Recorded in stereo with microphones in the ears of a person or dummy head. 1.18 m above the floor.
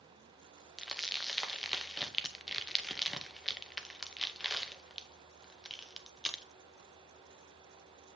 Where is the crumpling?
Centre (ahead or behind), 0.7 m.